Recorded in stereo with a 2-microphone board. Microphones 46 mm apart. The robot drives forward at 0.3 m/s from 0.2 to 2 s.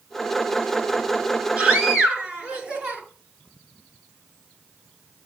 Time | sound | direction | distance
1.6 | a scream | 20° right (ahead or behind) | 5.5 m